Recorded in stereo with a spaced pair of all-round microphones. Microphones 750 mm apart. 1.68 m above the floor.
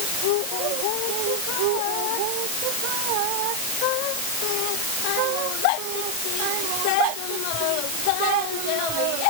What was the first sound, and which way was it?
Only background noise.